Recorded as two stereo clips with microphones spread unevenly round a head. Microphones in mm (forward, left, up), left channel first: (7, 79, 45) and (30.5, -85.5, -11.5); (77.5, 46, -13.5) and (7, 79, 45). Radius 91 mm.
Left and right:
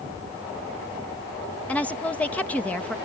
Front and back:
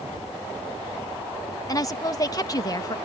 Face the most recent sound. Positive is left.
turn(degrees=15)